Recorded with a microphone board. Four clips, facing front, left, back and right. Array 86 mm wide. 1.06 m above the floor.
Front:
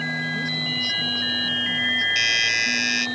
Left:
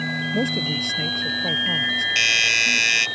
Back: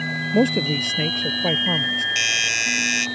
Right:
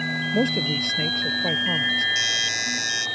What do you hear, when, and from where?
0.3 s a man speaking: 175° right
2.1 s a doorbell: 105° left